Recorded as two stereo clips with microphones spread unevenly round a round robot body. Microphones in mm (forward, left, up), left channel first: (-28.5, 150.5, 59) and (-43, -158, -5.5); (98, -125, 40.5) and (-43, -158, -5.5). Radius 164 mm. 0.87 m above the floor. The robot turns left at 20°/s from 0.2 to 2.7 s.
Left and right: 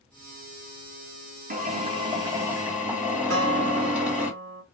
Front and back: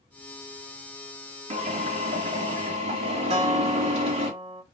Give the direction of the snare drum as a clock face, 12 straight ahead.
I don't hear a snare drum.